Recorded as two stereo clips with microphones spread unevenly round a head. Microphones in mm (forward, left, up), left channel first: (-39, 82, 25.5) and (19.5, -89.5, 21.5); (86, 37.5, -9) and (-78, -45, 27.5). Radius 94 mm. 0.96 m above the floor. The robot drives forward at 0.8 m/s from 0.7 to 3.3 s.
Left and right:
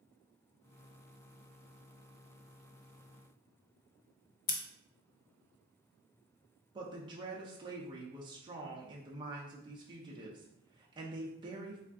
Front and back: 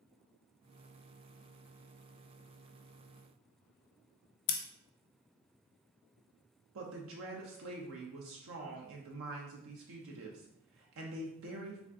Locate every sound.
4.5 s scissors: 60° left, 0.6 m
6.8 s a woman speaking: 135° right, 0.7 m